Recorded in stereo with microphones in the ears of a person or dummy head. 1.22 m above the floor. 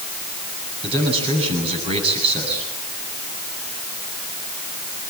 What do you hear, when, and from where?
0.8 s a man speaking: 35° right (ahead or behind), 9.5 m